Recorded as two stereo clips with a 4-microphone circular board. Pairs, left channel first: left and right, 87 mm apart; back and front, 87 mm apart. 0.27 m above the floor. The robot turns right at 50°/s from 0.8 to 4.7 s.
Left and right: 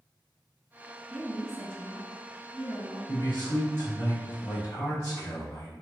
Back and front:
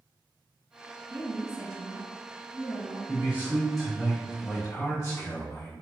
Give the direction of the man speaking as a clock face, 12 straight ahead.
10 o'clock.